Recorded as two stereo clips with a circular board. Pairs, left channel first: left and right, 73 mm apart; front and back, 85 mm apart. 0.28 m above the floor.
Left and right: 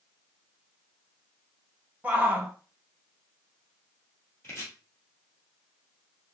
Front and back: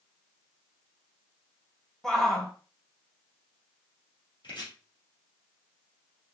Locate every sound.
2.0 s a shout: 75° right, 1.0 m
4.4 s chopping: 30° left, 3 m